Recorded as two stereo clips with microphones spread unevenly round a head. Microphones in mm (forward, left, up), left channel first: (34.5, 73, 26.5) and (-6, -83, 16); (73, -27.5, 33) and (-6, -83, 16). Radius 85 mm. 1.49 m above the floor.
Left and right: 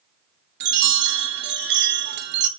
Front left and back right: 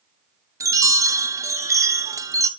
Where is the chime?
85° right, 0.9 m.